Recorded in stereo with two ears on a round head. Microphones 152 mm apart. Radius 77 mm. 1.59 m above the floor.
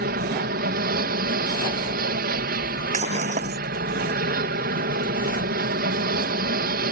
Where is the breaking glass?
40° right (ahead or behind).